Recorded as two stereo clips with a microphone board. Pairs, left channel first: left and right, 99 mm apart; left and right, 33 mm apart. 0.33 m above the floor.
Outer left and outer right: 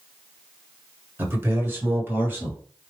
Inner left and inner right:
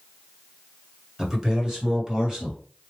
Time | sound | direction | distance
1.2 | a man speaking | 20° right (ahead or behind) | 1.3 m